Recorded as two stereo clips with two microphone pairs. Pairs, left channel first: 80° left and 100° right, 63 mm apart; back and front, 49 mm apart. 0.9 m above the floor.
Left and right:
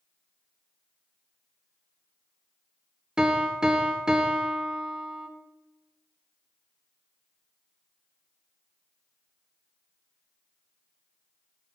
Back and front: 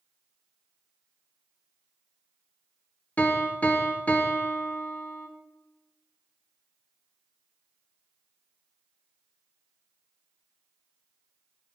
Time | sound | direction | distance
3.2 | a piano | 160° right | 0.6 m